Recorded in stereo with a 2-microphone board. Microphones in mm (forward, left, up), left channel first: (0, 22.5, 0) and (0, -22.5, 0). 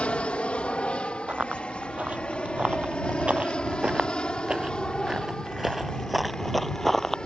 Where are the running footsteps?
25° right (ahead or behind); by 7.2 s 10° left (ahead or behind).